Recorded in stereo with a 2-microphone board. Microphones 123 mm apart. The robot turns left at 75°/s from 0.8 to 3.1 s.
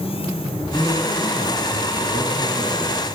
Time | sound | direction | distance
0.7 | a man speaking | 20° left | 1.9 m